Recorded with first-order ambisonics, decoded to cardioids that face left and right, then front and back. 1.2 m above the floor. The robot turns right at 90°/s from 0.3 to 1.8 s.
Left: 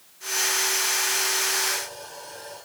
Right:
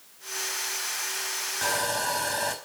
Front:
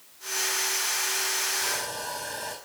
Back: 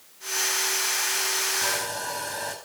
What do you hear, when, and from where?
1.6 s sawing: 115° right, 5 m; by 2.5 s 100° right, 5 m